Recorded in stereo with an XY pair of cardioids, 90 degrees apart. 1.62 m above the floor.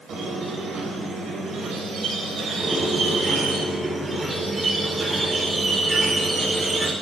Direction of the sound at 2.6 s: 35° right.